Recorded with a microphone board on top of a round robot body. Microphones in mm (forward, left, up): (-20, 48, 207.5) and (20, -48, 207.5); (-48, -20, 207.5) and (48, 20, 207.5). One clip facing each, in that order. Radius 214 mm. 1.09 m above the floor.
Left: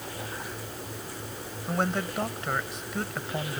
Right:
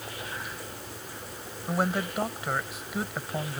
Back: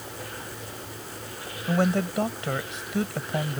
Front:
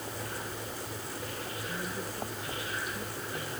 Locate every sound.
1.7 s a man speaking: 150° right